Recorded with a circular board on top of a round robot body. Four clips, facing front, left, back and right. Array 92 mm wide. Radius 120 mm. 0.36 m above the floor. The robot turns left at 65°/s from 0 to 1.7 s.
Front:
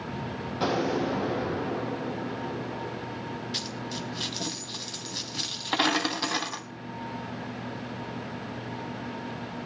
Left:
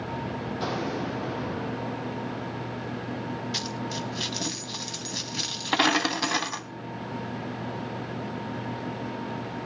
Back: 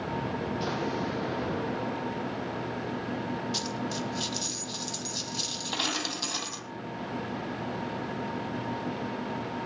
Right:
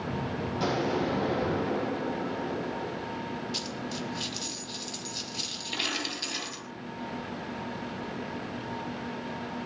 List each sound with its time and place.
0.6 s an explosion: 10° right, 9 m; by 3.1 s 80° right, 9 m
3.5 s a dropped coin: 65° left, 1.4 m